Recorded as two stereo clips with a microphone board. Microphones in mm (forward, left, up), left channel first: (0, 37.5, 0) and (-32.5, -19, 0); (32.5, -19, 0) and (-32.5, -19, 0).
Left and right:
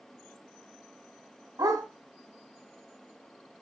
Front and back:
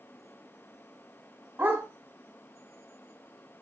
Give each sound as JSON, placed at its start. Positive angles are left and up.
{"t": 1.6, "sound": "a dog barking", "azimuth_deg": -120, "distance_m": 3.5}